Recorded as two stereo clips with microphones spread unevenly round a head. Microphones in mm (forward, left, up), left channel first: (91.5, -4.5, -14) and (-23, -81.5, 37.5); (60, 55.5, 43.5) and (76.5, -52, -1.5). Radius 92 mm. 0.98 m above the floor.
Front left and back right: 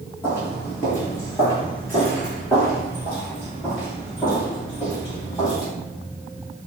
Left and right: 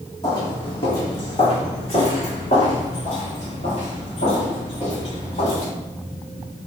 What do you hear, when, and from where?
0.2 s footsteps: 130° left, 1.7 m; by 5.7 s 110° left, 5 m